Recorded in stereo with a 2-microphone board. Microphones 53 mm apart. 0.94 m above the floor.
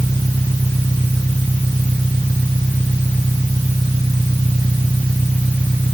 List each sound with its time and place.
0.0 s an engine running: 70° right (ahead or behind)